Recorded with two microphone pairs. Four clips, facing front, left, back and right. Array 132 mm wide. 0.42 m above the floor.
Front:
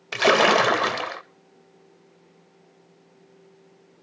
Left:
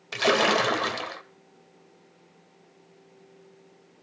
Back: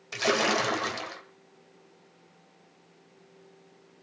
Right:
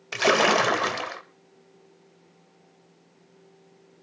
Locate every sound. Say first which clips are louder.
0.1 s a splash: right 2 dB, front 8 dB; 15° right, 0.8 m